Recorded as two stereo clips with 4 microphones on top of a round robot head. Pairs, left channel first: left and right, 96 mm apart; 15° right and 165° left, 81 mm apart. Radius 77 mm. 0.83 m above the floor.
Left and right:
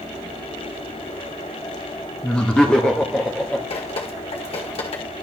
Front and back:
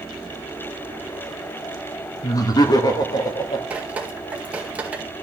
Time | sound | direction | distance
2.2 | laughter | 10° left | 1.4 m
3.7 | dripping | 95° left | 1.9 m